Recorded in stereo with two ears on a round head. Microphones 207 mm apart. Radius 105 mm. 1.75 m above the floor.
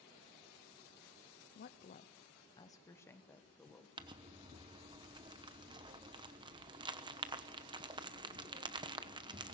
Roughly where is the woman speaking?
Left.